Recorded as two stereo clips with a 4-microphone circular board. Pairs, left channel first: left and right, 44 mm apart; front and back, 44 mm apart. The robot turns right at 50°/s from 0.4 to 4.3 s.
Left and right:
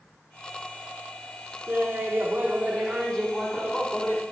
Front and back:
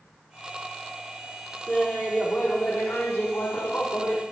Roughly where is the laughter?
Right.